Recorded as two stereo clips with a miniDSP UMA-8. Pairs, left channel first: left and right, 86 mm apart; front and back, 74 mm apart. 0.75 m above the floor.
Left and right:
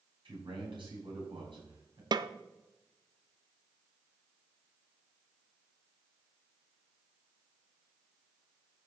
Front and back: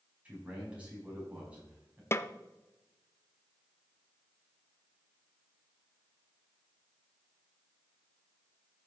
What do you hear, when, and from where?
0.2 s a man speaking: 105° right, 5.5 m
2.1 s a snare drum: 55° right, 0.5 m